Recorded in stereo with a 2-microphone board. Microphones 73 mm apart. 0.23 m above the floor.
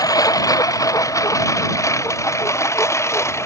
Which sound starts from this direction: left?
A lawn mower, at 0.0 s.